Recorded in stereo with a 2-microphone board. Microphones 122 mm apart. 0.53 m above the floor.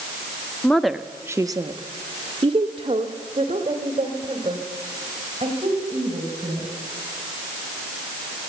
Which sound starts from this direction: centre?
A woman speaking, at 0.6 s.